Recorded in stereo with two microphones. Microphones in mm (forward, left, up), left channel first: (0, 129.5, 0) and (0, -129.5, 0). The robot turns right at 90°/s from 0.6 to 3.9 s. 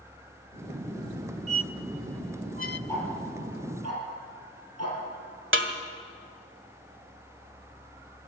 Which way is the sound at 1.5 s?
70° right (ahead or behind).